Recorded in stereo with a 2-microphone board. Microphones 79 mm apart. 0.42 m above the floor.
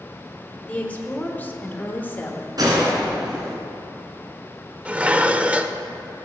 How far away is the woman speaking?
About 1.5 m.